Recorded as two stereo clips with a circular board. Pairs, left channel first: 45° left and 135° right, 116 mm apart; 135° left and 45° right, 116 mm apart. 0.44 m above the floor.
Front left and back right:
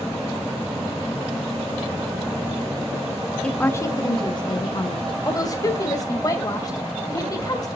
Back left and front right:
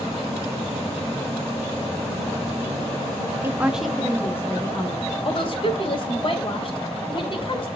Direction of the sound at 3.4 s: 25° right.